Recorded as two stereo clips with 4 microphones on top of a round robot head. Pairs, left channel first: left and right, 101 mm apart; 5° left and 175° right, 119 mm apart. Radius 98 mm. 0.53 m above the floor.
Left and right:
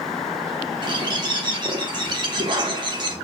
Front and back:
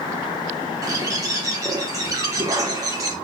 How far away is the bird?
About 1.2 m.